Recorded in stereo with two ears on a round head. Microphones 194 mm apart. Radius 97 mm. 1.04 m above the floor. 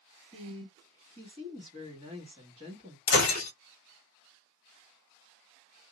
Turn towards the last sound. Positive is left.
turn(degrees=50)  # may be behind; listen again after turning